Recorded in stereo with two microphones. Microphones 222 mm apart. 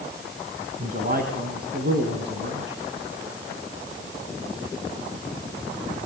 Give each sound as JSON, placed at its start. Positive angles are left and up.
{"t": 0.8, "sound": "a man speaking", "side_deg": -40, "distance_m": 3.5}